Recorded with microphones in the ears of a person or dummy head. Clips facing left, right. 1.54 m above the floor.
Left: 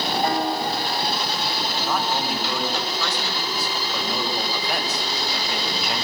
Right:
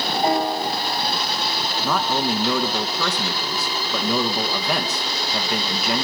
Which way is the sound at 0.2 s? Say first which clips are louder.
Right 4 dB; 20° right (ahead or behind).